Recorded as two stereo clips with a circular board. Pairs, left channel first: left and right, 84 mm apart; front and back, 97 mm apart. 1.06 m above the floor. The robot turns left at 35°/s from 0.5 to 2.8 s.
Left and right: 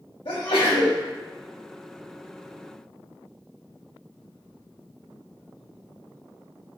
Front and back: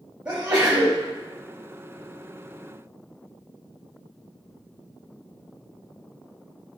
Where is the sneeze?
110° left, 0.8 m; by 1.0 s 90° left, 0.8 m.